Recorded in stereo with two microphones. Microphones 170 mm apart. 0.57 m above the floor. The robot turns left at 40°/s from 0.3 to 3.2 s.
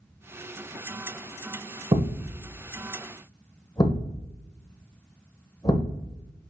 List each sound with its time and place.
1.9 s a thud: 30° right (ahead or behind), 0.9 m; by 6.0 s 25° left (ahead or behind), 0.9 m